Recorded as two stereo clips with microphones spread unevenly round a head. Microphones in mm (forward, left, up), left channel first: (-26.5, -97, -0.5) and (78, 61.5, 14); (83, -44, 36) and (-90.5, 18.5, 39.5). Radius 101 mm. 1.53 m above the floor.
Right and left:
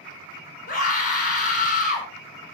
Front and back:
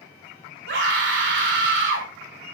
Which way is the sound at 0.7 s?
175° right.